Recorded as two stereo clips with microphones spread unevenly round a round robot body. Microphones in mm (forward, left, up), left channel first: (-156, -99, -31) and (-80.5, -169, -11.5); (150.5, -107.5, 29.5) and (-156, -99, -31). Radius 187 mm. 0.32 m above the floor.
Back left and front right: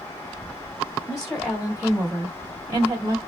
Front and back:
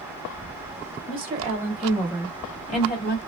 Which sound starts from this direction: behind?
A woman speaking, at 1.1 s.